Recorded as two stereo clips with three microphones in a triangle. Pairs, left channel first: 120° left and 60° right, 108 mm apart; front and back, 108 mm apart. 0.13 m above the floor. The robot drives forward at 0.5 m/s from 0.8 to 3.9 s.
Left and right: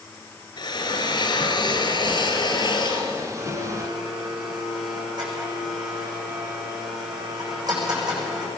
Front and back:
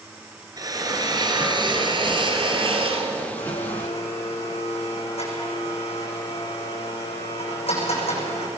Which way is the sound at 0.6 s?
145° left.